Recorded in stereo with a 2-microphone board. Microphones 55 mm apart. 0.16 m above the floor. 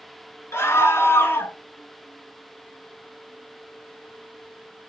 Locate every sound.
0.5 s a scream: 50° left (ahead or behind), 2 m; by 1.6 s 40° left (ahead or behind), 2 m